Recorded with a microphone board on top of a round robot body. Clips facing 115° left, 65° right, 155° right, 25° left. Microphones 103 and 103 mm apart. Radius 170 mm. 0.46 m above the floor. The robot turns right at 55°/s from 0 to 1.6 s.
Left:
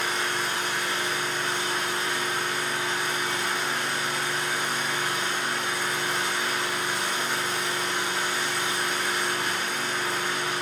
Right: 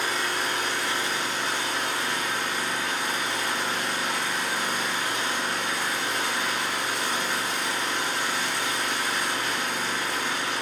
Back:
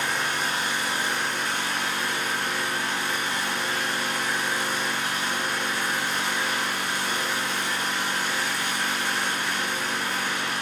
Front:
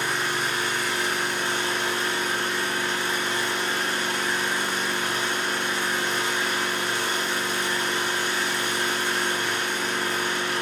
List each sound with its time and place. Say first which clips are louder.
0.0 s an engine running: even, front 1 dB; 125° right, 5 m; by 10.6 s 35° right, 5 m